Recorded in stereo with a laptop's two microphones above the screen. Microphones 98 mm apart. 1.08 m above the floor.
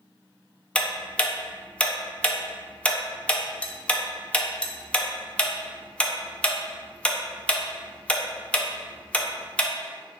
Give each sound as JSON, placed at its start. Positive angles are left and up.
{"t": 0.8, "sound": "ticking", "side_deg": 10, "distance_m": 0.6}